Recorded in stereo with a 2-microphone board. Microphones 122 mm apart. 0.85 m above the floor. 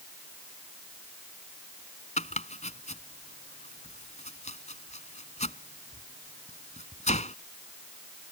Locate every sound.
2.2 s chopping: 70° left (ahead or behind)